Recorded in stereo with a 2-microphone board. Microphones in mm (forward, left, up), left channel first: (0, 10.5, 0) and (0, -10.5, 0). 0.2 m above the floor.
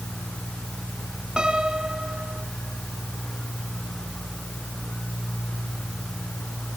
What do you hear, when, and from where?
1.4 s a piano: 40° right (ahead or behind), 1.7 m